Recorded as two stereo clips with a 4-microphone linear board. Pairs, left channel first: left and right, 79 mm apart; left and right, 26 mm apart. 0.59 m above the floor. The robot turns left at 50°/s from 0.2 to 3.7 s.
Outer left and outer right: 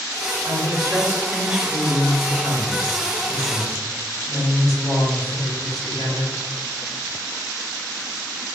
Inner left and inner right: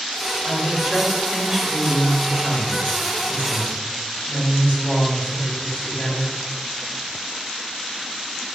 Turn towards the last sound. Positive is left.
turn(degrees=75)